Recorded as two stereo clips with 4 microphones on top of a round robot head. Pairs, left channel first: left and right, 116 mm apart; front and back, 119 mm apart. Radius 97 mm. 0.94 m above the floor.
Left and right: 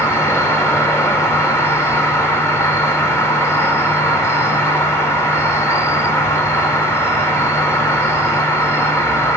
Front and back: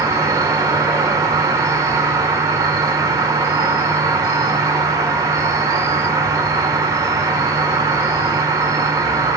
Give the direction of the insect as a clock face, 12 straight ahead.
7 o'clock.